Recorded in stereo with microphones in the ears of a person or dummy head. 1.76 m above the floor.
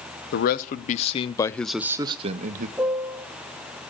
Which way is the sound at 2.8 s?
5° right (ahead or behind).